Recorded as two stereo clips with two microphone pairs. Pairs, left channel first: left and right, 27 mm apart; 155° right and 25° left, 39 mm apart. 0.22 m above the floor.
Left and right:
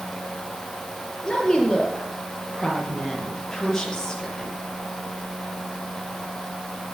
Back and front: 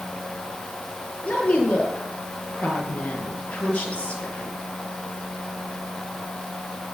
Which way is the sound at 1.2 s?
155° left.